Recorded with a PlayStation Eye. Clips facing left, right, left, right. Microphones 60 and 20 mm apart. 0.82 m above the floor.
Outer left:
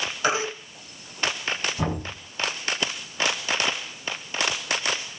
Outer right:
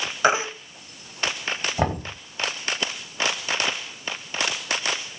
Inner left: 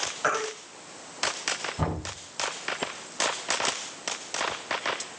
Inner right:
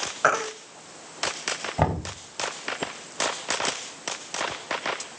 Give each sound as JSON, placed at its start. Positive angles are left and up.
{"t": 0.2, "sound": "a baby crying", "side_deg": -30, "distance_m": 1.5}
{"t": 1.8, "sound": "knocking", "side_deg": -60, "distance_m": 5.5}